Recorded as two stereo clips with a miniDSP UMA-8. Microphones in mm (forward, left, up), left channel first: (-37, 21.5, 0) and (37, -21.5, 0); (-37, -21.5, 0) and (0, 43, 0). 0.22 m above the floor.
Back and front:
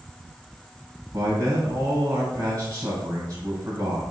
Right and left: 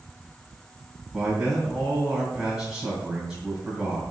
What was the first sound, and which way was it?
A man speaking, 25° right.